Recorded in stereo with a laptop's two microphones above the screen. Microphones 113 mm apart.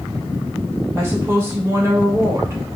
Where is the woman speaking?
20° right (ahead or behind), 2.5 m.